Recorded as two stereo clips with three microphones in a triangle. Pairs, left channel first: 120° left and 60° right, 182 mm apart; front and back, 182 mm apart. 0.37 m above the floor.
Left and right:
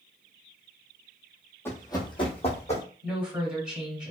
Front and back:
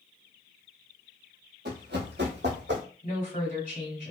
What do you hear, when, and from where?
1.6 s running footsteps: 165° right, 0.7 m; by 2.8 s 170° left, 1.2 m
3.0 s a woman speaking: 20° left, 1.7 m